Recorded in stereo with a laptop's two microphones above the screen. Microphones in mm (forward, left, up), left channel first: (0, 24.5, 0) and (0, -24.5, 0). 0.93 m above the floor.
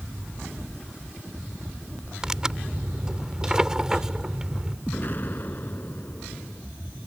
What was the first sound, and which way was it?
Tearing paper, 15° right (ahead or behind).